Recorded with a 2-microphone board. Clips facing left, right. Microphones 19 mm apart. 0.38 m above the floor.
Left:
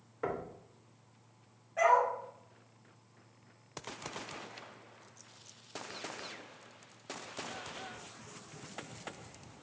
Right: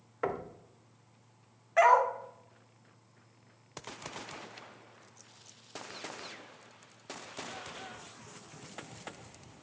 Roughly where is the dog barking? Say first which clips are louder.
Right 4 dB; right.